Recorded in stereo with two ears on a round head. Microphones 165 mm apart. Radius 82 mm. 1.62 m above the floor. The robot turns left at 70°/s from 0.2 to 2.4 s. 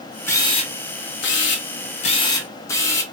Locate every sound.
0.3 s a camera shutter: 165° left, 0.7 m; by 3.0 s 15° left, 0.7 m